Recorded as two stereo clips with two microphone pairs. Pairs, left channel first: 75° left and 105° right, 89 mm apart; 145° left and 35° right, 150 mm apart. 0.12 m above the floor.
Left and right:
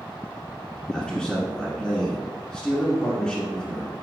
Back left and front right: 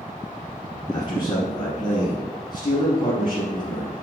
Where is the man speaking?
145° left, 1.2 m.